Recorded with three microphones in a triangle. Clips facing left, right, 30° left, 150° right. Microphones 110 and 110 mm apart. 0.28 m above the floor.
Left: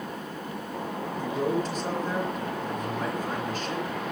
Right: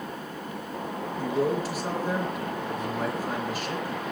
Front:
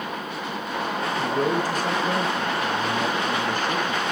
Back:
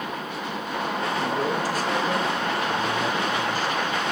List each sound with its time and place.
1.2 s a man speaking: 5° right, 6 m